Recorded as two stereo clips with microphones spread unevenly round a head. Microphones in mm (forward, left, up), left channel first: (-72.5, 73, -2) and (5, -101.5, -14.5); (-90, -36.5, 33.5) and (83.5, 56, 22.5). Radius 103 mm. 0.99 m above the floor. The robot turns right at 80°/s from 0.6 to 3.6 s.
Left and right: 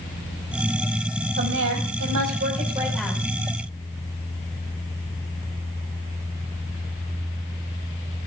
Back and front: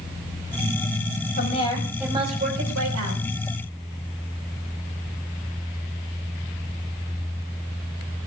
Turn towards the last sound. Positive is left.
turn(degrees=75)